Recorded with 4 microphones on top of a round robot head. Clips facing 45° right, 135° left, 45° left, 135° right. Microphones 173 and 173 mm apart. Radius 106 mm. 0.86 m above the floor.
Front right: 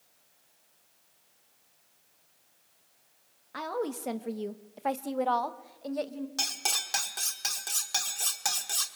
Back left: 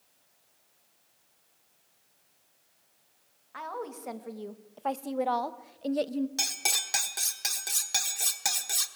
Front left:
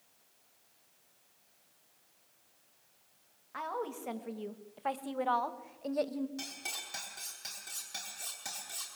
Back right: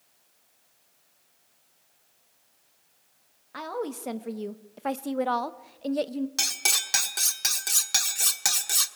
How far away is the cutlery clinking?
About 1.2 m.